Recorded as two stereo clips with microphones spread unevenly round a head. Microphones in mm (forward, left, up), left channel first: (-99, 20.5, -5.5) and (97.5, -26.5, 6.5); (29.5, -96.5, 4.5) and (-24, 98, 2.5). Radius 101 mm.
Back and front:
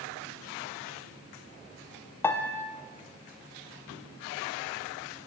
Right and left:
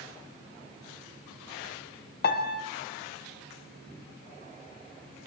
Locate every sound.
2.2 s a piano: 115° right, 0.8 m